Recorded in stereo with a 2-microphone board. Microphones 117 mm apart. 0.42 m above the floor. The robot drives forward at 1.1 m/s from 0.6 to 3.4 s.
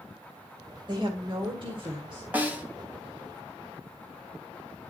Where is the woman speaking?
40° right (ahead or behind), 1.8 m.